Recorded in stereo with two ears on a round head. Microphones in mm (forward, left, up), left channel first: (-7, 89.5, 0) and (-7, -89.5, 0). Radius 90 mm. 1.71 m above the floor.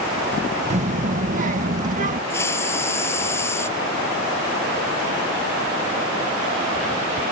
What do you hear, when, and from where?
0.7 s a child speaking: 35° right (ahead or behind); by 2.2 s 40° right (ahead or behind)
2.3 s a hiss: 15° left (ahead or behind)